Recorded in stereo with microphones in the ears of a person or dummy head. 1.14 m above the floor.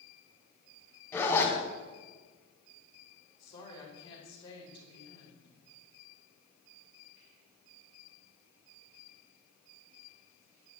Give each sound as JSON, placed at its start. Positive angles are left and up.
{"t": 1.1, "sound": "a zipper", "side_deg": 15, "distance_m": 3.0}
{"t": 3.4, "sound": "a woman speaking", "side_deg": 20, "distance_m": 5.0}